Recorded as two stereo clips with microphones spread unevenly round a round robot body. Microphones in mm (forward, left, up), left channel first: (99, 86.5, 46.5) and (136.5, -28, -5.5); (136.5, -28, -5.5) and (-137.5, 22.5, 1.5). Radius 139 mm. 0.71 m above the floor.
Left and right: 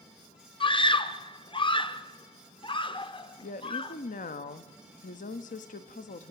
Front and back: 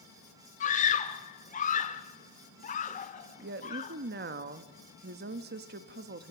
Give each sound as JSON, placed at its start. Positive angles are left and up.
{"t": 0.6, "sound": "a scream", "azimuth_deg": 55, "distance_m": 1.9}
{"t": 3.4, "sound": "a woman speaking", "azimuth_deg": 130, "distance_m": 0.9}